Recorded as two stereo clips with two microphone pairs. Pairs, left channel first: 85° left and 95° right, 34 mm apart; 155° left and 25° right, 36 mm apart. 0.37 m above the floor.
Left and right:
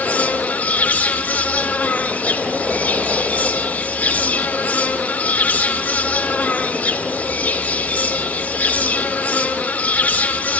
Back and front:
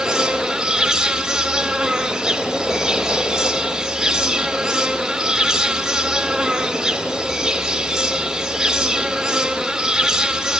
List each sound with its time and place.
0.0 s an insect: 45° left, 3.5 m